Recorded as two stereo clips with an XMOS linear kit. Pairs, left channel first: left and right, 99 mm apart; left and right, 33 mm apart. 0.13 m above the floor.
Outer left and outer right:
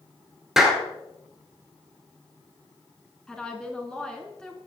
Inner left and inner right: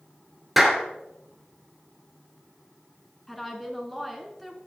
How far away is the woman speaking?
About 1.1 m.